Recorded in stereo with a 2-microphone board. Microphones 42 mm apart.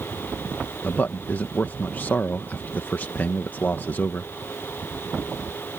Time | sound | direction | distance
0.8 | a man speaking | 50° left (ahead or behind) | ?